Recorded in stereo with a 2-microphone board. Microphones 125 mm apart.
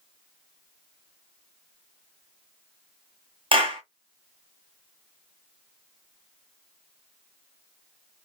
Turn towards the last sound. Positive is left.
turn(degrees=-45)  # may be behind; listen again after turning